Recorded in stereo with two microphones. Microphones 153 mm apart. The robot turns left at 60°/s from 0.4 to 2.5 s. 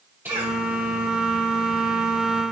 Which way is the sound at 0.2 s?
15° right (ahead or behind).